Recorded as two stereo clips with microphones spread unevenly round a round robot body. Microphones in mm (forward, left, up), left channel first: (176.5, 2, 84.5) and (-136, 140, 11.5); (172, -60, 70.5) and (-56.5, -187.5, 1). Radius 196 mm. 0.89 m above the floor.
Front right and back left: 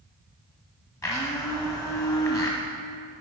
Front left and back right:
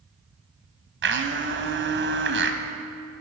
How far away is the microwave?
No microwave in this recording.